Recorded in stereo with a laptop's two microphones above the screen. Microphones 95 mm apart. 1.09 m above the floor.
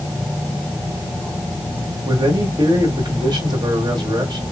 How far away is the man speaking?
About 2.5 m.